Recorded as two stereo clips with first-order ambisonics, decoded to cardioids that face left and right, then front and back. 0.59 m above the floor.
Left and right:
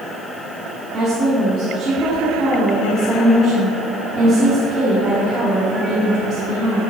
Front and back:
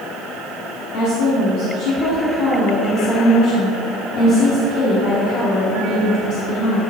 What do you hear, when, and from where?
0.9 s a woman speaking: 30° right, 1.2 m